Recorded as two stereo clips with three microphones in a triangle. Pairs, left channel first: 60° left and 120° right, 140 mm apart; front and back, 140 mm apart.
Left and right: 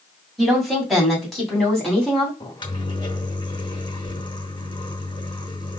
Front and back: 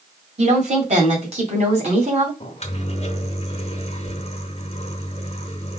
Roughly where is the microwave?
Ahead.